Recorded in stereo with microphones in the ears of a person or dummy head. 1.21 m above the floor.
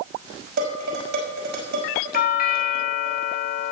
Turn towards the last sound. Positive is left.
turn(degrees=50)  # may be behind; listen again after turning